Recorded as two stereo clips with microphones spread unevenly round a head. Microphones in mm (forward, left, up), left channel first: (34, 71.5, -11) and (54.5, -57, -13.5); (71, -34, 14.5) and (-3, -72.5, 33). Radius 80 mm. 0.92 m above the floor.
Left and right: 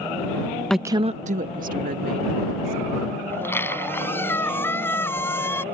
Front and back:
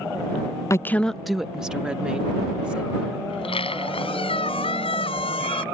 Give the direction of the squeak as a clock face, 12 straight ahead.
11 o'clock.